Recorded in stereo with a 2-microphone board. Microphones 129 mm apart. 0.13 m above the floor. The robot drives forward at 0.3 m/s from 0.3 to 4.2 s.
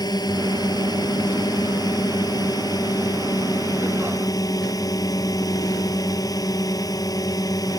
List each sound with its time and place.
0.0 s a drone: 30° left (ahead or behind)